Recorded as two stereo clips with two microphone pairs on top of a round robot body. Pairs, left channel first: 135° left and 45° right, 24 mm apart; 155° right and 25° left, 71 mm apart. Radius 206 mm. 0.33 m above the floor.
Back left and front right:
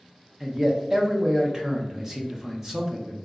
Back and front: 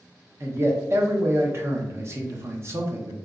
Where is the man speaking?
20° left, 0.9 m.